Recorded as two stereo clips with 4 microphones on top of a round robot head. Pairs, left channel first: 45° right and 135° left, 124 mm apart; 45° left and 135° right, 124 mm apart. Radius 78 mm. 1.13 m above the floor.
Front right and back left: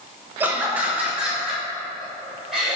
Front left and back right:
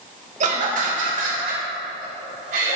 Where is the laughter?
145° right, 1.5 m; by 2.8 s 135° right, 4 m.